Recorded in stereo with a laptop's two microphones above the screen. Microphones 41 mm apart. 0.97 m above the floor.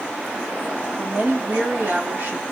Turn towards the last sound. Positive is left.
turn(degrees=-40)  # may be behind; listen again after turning